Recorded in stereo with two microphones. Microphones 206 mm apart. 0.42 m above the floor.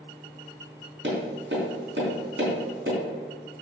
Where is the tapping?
65° right (ahead or behind), 3.5 m.